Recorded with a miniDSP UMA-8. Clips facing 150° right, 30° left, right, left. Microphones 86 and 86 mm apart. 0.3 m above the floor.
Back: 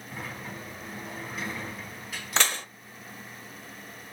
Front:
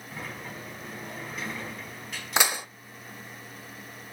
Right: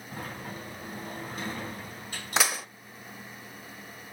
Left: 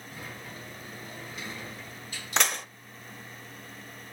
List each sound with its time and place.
0.1 s a sliding door: 60° right, 3 m
2.4 s dishes clattering: 15° right, 0.5 m